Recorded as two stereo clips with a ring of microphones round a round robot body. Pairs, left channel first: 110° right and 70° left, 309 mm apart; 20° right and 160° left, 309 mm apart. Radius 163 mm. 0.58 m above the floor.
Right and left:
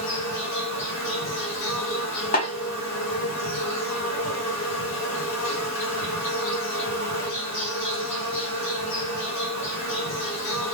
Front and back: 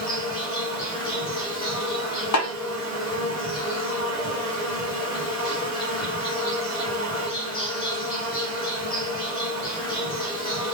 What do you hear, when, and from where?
0.0 s an insect: 95° right, 2.5 m
2.3 s a snare drum: 50° right, 0.6 m